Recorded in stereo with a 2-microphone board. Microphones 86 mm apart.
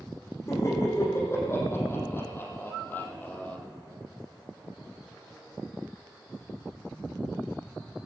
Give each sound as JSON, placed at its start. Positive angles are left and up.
{"t": 0.5, "sound": "laughter", "side_deg": 35, "distance_m": 6.0}